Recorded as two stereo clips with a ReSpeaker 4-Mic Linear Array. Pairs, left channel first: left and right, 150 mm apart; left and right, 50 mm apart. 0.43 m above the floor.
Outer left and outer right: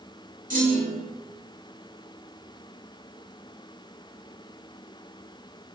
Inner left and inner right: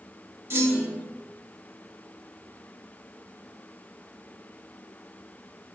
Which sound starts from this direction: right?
A clunk, at 0.5 s.